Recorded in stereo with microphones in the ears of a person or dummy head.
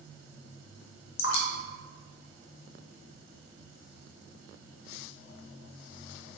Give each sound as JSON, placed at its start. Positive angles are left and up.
{"t": 1.2, "sound": "dripping", "side_deg": 75, "distance_m": 0.5}